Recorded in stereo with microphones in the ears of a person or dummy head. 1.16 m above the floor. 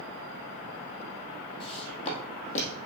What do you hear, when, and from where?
1.6 s footsteps: 30° left (ahead or behind), 2.5 m; by 2.8 s 45° left (ahead or behind), 2.5 m